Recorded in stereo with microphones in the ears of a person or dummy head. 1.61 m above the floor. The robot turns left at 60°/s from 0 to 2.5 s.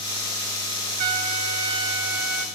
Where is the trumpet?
25° right (ahead or behind), 1.5 m; by 2.5 s 5° right (ahead or behind), 1.5 m.